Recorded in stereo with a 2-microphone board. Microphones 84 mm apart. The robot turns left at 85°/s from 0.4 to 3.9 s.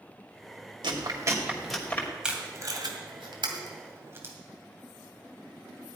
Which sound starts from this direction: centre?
Tape being pulled, at 2.2 s.